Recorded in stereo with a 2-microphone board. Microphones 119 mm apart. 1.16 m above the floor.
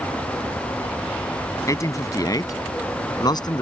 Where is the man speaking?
25° left (ahead or behind); by 3.6 s 35° left (ahead or behind).